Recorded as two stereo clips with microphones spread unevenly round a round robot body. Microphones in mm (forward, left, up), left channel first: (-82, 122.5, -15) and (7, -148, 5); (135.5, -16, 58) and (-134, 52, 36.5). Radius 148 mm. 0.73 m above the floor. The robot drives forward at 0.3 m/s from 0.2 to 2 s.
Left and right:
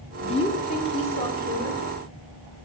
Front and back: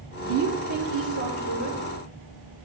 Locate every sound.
0.2 s a woman speaking: 175° left, 1.6 m